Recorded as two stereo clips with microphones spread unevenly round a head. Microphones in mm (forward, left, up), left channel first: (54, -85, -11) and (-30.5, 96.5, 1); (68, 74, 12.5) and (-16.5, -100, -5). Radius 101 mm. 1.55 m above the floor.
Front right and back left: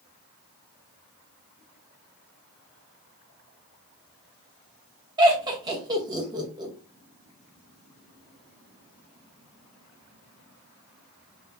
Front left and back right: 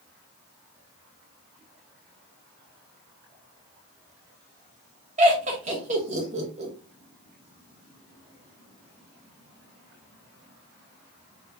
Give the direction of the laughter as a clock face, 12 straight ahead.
6 o'clock.